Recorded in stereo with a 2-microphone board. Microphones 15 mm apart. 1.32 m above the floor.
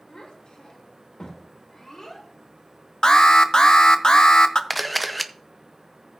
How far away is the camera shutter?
About 0.7 m.